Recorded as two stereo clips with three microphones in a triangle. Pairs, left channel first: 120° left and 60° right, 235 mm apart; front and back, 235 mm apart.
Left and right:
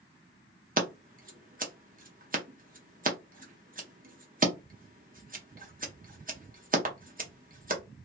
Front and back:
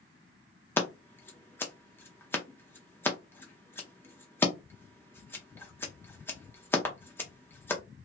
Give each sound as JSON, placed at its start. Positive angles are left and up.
{"t": 0.8, "sound": "scissors", "azimuth_deg": -75, "distance_m": 0.6}